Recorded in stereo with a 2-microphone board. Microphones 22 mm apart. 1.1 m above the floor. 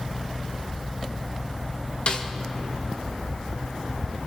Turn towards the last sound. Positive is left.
turn(degrees=50)  # may be behind; listen again after turning